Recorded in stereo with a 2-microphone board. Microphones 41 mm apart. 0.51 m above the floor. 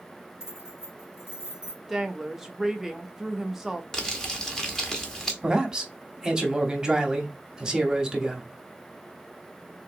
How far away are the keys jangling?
About 3 m.